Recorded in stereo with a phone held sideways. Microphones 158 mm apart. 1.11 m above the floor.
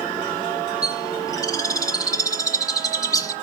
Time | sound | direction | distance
0.8 | a bird | 20° left (ahead or behind) | 0.9 m